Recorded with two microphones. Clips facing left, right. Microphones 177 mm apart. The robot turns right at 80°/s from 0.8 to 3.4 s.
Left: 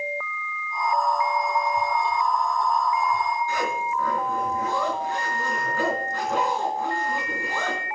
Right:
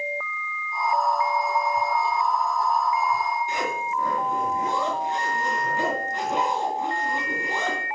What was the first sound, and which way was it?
A zipper, 20° right (ahead or behind).